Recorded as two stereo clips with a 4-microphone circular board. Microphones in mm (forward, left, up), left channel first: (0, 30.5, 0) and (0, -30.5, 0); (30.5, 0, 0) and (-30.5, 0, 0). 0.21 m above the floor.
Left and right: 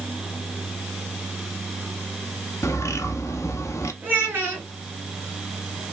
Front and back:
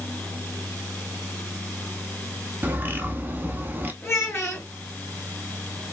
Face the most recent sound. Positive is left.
turn(degrees=-35)